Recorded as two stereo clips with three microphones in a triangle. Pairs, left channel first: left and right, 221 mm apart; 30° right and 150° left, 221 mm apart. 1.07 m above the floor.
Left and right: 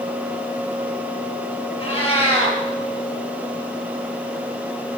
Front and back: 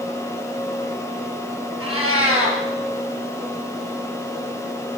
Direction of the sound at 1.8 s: 155° left.